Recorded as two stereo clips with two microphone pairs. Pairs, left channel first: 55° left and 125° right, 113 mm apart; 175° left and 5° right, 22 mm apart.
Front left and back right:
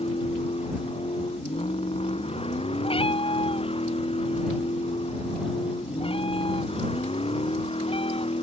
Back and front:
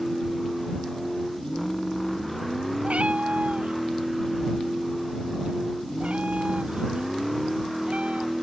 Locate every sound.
0.0 s a vehicle: 85° left
2.8 s a cat meowing: 20° left